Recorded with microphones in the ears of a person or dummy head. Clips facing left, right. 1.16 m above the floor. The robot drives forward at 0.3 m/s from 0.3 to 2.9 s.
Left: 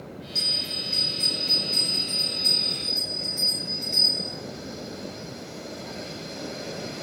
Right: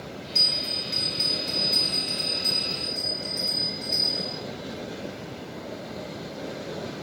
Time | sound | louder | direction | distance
0.3 | a bell | right 1 dB | 25° right (ahead or behind) | 2 m